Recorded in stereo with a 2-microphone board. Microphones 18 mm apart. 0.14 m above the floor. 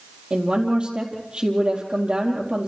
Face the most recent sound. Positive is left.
turn(degrees=-65)  # may be behind; listen again after turning